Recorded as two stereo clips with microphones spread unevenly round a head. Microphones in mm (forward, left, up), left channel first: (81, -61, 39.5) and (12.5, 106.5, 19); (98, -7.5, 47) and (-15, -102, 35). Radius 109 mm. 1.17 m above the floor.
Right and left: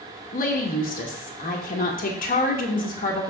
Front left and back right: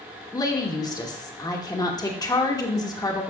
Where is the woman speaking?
25° right, 2 m.